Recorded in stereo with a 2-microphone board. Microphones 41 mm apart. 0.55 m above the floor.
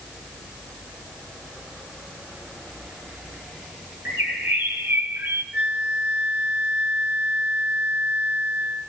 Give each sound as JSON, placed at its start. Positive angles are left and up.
{"t": 4.0, "sound": "a bird", "side_deg": -70, "distance_m": 3.0}
{"t": 5.5, "sound": "a flute", "side_deg": -45, "distance_m": 0.9}